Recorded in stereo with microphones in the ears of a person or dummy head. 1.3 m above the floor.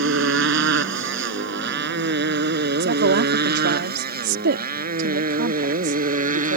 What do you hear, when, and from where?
0.0 s a motorcycle: 75° right (ahead or behind); by 6.6 s 45° right (ahead or behind)
2.8 s a woman speaking: 60° right (ahead or behind)